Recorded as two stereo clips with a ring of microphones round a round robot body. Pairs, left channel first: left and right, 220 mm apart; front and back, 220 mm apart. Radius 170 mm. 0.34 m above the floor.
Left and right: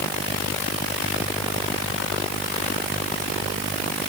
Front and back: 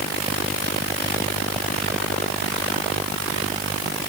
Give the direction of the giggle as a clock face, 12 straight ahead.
I don't hear a giggle.